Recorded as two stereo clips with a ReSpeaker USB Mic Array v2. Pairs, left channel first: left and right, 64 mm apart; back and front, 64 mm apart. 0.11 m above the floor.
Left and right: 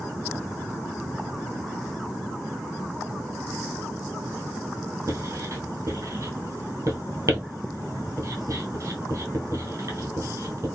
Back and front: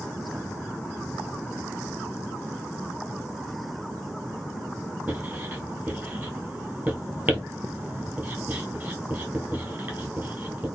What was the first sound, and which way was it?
Writing, 60° right.